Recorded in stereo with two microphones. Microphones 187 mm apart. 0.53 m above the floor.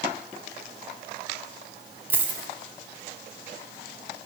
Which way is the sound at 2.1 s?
10° right (ahead or behind).